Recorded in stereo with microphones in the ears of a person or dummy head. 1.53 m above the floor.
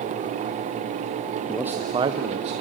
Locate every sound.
1.5 s a man speaking: 5° right (ahead or behind), 0.5 m; by 2.5 s 40° right (ahead or behind), 1.0 m